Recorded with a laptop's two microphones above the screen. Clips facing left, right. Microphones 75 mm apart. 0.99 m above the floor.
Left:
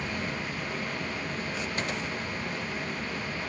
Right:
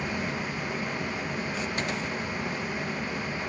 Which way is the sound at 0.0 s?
15° right (ahead or behind).